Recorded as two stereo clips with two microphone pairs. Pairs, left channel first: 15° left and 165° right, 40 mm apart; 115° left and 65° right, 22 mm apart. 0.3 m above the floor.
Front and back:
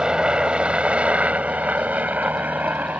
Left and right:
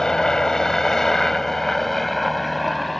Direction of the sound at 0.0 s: 145° left.